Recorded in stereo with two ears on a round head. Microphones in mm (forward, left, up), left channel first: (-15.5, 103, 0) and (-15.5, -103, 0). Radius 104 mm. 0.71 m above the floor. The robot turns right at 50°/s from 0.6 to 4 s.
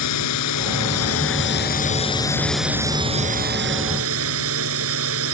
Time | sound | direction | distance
0.0 | a drone | 80° left | ?